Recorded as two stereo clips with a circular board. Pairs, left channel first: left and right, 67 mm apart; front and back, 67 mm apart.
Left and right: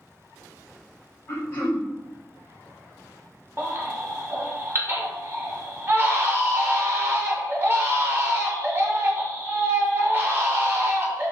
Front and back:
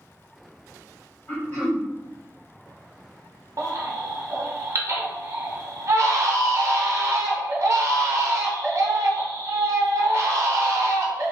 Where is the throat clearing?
45° left, 1.3 m.